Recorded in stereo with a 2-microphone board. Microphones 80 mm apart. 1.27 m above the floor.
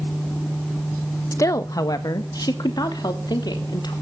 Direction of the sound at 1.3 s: 40° left (ahead or behind).